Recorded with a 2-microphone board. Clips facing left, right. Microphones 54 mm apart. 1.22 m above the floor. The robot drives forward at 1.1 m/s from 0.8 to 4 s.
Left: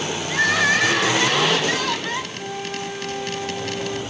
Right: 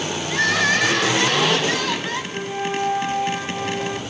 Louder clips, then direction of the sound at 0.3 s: Left 1 dB; 5° left (ahead or behind).